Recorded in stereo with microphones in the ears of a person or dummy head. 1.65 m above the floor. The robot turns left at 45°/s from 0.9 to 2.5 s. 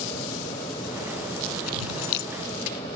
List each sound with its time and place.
1.7 s keys jangling: 85° left; by 2.3 s 60° left (ahead or behind)